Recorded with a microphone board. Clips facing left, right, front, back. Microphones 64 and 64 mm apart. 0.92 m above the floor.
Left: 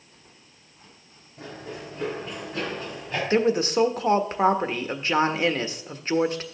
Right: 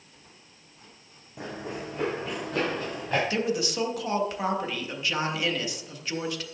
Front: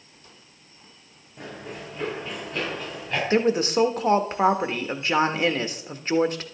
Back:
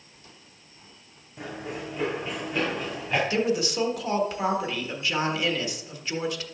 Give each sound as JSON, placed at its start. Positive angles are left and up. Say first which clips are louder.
{"t": 1.4, "sound": "running footsteps", "louder": "right 2 dB, back 2 dB", "azimuth_deg": -95, "distance_m": 4.0}
{"t": 3.3, "sound": "a woman speaking", "louder": "left 6 dB, front 4 dB", "azimuth_deg": 45, "distance_m": 1.4}